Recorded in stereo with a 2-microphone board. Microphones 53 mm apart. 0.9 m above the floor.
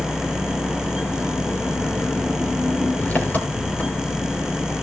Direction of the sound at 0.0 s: 30° left (ahead or behind).